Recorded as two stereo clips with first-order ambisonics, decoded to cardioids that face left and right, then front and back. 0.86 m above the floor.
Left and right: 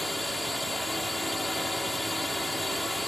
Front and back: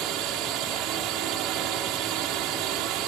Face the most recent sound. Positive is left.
turn(degrees=175)